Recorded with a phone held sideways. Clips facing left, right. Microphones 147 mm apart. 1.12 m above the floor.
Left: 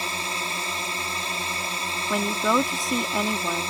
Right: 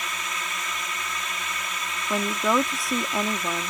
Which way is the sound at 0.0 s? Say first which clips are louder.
Left 3 dB; 30° left (ahead or behind).